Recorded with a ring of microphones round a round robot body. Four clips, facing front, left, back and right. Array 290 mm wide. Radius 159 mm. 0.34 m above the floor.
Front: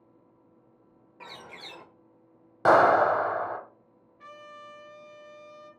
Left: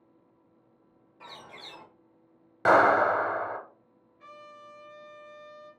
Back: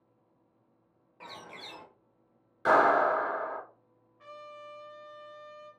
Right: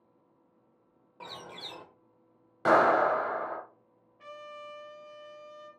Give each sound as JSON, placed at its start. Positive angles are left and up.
{"t": 1.2, "sound": "a bird", "azimuth_deg": -60, "distance_m": 1.0}
{"t": 2.6, "sound": "a clap", "azimuth_deg": 20, "distance_m": 1.0}
{"t": 4.2, "sound": "a trumpet", "azimuth_deg": -55, "distance_m": 1.2}